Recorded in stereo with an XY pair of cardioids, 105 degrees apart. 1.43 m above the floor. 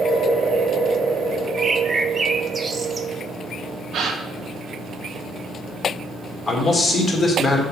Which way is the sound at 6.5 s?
15° left.